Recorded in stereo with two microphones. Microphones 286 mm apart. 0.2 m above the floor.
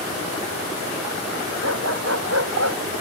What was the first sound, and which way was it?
A dog barking, 55° right (ahead or behind).